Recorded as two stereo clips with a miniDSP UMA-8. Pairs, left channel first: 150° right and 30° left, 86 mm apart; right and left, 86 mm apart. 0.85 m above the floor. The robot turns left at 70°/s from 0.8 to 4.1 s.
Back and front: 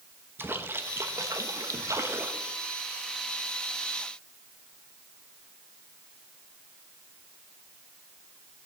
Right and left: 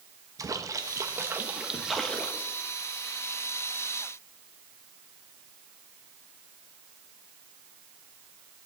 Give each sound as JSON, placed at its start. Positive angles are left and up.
{"t": 0.4, "sound": "a splash", "azimuth_deg": 80, "distance_m": 1.2}